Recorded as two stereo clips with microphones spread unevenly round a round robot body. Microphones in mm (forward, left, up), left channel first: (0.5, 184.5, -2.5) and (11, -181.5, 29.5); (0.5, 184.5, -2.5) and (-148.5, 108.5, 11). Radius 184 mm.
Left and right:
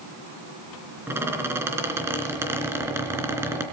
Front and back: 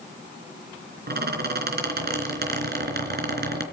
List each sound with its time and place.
1.1 s a squeak: 170° right, 3.5 m